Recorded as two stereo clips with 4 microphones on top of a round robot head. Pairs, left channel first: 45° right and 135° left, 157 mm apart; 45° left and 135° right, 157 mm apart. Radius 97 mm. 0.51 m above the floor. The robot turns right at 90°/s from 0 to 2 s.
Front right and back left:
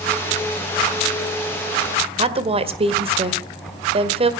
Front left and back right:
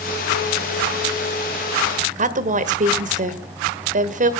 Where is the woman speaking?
170° right, 1.8 m.